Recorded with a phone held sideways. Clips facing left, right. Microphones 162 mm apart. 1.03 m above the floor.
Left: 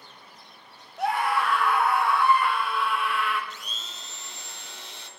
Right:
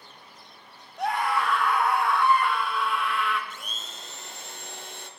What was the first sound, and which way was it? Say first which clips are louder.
A scream: left 1 dB; centre (ahead or behind).